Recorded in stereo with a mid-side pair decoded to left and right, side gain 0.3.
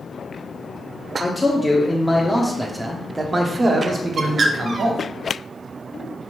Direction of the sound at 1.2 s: 25° left.